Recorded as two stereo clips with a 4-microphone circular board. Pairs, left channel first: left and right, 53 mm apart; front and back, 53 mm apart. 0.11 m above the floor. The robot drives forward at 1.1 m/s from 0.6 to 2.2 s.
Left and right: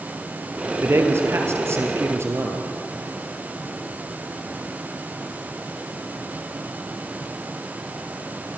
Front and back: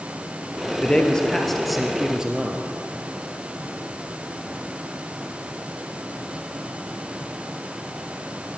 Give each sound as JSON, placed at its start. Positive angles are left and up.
{"t": 0.8, "sound": "a man speaking", "azimuth_deg": -65, "distance_m": 3.0}